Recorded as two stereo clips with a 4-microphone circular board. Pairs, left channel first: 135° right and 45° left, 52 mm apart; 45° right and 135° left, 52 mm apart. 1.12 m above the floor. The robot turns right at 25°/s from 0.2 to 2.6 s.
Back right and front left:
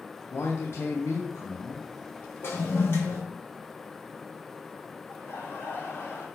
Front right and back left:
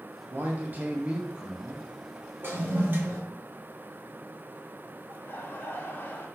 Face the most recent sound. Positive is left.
turn(degrees=-90)